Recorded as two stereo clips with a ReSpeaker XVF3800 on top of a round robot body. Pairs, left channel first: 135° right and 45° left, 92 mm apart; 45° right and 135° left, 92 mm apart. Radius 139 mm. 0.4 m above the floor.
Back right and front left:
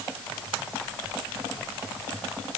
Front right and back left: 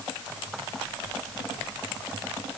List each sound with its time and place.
Only background noise.